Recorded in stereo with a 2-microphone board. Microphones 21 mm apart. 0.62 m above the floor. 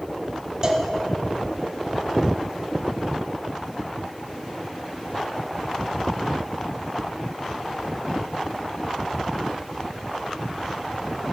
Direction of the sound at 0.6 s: 35° right (ahead or behind).